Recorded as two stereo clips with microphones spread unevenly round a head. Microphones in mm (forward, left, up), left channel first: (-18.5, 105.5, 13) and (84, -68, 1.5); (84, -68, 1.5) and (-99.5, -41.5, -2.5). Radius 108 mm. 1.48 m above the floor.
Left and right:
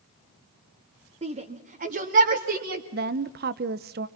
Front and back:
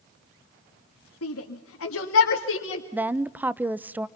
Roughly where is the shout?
Ahead.